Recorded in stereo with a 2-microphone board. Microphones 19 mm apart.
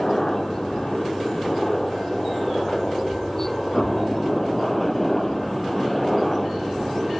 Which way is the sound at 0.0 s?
20° left (ahead or behind).